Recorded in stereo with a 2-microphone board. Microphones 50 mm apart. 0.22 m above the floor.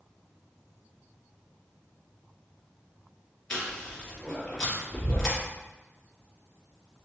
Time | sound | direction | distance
3.5 | chewing | 15° left (ahead or behind) | 2 m